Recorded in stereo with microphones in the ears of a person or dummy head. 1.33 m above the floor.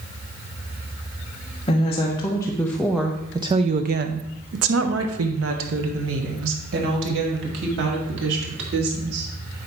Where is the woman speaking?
30° left (ahead or behind), 1.1 m; by 9.3 s 70° right (ahead or behind), 3 m.